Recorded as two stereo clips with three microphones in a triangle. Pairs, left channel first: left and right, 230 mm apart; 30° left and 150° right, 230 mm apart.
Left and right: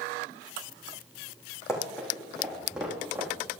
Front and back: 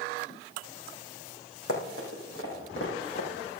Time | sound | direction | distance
1.7 | running footsteps | 10° left | 4.5 m